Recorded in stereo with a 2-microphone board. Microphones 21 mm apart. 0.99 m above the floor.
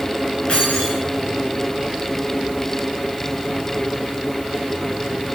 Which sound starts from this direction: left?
Keys jangling, at 0.5 s.